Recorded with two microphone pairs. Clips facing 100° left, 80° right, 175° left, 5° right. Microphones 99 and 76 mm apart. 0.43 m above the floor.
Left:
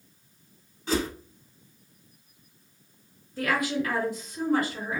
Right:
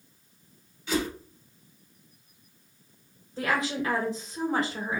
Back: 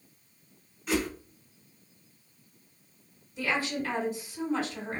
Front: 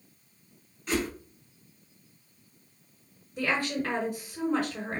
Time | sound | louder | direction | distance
0.9 | a whoosh | left 1 dB, back 1 dB | 90° left | 1.2 m
3.4 | a woman speaking | left 1 dB, front 1 dB | 25° right | 2 m